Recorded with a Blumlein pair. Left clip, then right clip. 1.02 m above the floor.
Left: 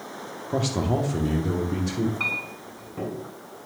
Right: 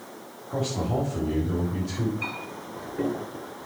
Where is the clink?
45° left, 4.5 m.